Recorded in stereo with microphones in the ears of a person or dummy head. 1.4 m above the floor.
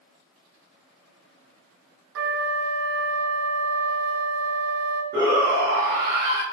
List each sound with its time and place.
2.1 s a flute: 60° right (ahead or behind), 0.5 m
5.1 s a shout: 25° right (ahead or behind), 1.1 m